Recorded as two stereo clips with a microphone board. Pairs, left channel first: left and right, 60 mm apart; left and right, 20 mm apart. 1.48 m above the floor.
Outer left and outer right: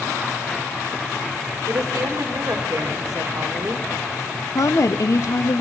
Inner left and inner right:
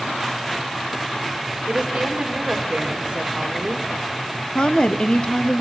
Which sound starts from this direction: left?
A woman speaking, at 4.5 s.